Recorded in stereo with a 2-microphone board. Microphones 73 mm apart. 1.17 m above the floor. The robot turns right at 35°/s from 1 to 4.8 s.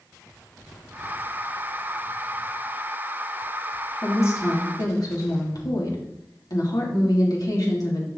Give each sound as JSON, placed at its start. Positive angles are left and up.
{"t": 4.0, "sound": "a woman speaking", "side_deg": 35, "distance_m": 3.0}